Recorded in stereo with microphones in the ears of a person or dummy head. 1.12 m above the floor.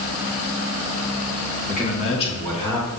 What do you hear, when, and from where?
1.6 s a man speaking: 45° left (ahead or behind), 1.7 m; by 2.9 s 20° left (ahead or behind), 2 m